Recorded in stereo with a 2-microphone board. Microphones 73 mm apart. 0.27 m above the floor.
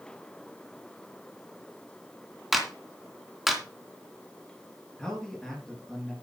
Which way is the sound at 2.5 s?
5° right (ahead or behind).